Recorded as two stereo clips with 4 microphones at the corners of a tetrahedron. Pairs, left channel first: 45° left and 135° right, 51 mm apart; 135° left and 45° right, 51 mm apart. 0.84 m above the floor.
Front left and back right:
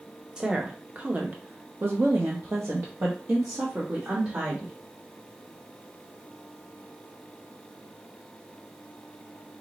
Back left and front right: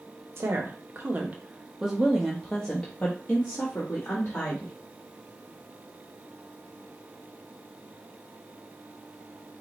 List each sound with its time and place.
0.4 s a woman speaking: 60° right, 1.0 m; by 4.7 s 175° left, 1.7 m